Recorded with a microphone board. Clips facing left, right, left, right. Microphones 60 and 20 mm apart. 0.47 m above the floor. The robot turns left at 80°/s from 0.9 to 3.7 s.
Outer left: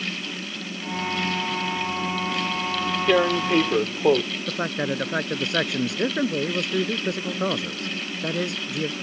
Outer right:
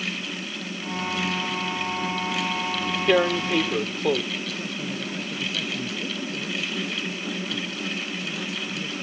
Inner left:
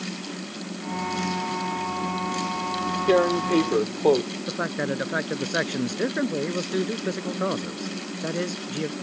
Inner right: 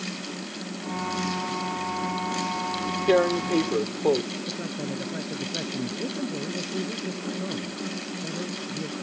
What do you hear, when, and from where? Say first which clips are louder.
3.1 s tearing paper: outer left 1 dB, inner left 1 dB; 175° right; by 4.2 s 135° left
4.5 s a man speaking: outer left 5 dB, inner left 5 dB; 80° left